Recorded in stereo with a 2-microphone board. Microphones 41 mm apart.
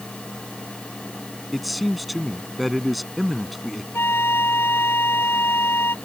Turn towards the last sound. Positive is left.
turn(degrees=70)  # may be behind; listen again after turning